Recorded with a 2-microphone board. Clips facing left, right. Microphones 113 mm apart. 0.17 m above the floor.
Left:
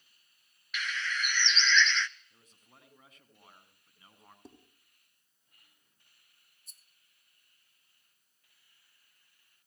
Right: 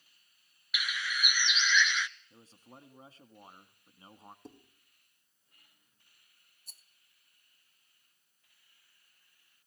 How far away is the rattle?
About 0.8 m.